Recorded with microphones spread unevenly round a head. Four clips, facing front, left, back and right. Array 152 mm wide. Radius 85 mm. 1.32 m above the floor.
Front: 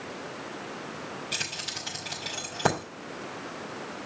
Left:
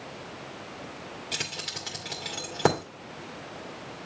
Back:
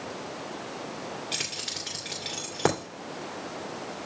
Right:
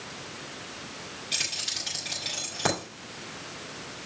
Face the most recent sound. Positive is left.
turn(degrees=135)